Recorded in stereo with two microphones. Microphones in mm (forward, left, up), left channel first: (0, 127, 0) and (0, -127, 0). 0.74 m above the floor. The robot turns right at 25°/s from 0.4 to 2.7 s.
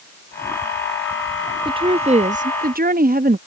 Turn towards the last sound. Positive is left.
turn(degrees=-35)  # may be behind; listen again after turning